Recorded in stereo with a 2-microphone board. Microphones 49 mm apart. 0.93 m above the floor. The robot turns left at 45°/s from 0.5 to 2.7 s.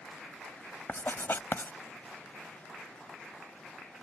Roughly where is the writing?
Left.